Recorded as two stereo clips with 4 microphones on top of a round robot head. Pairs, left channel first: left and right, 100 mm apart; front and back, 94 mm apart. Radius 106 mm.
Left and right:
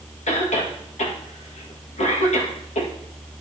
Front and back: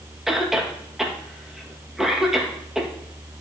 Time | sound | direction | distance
0.3 | a cough | 95° left | 1.9 m